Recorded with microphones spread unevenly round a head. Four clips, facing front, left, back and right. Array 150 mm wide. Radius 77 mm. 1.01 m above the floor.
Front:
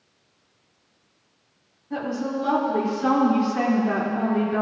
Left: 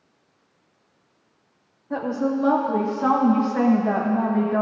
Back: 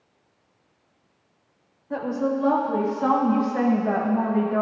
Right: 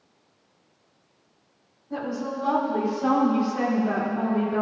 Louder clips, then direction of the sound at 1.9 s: Left 6 dB, back 2 dB; 115° left.